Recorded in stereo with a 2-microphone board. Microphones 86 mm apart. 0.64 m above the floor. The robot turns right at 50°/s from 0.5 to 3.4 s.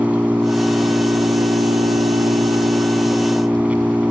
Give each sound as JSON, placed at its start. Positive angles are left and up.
{"t": 0.0, "sound": "an engine running", "azimuth_deg": -160}